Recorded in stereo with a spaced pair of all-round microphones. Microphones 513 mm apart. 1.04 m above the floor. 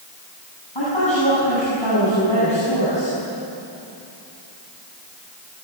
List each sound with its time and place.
0.8 s a woman speaking: 60° left (ahead or behind), 9 m